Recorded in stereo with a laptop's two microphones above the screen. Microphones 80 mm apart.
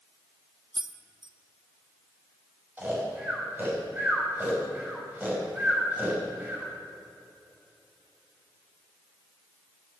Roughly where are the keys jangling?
Right.